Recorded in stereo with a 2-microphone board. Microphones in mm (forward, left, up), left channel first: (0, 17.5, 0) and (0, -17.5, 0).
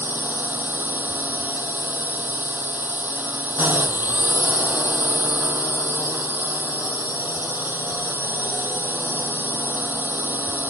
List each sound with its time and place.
0.0 s a drone: 70° right (ahead or behind)